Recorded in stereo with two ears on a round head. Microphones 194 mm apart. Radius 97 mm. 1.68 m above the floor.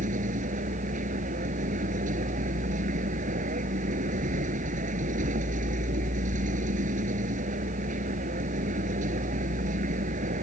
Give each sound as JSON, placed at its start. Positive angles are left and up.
{"t": 0.0, "sound": "a vehicle", "side_deg": -35}